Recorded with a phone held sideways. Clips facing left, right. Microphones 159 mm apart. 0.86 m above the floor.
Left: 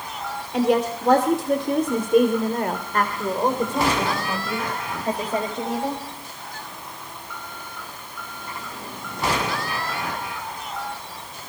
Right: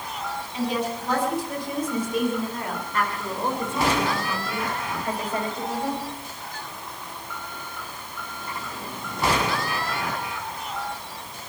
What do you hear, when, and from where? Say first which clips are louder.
0.5 s a woman speaking: left 7 dB; 75° left (ahead or behind), 3 m; by 6.0 s 25° left (ahead or behind), 5 m